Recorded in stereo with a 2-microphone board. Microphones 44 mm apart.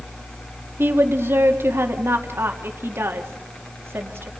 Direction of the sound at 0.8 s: 65° right (ahead or behind).